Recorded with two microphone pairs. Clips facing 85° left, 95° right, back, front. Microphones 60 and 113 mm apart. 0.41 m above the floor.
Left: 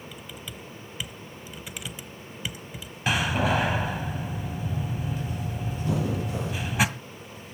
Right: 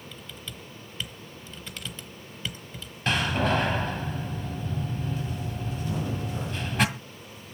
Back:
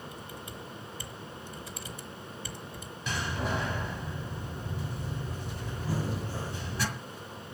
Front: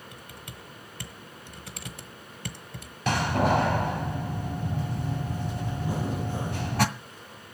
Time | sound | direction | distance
0.1 | typing on a keyboard | 10° left | 1.1 m
3.1 | a door slam | straight ahead | 1.6 m
5.8 | breathing | 70° left | 4 m